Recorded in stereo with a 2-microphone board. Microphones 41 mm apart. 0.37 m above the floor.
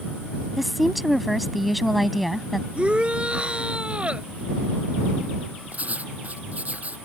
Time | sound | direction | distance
0.6 | a woman speaking | centre (ahead or behind) | ?
2.8 | a shout | 30° right (ahead or behind) | ?
5.7 | writing | 45° right (ahead or behind) | ?